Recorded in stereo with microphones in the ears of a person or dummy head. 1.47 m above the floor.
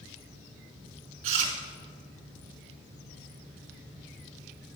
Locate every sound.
1.2 s chewing: 35° right (ahead or behind), 1.6 m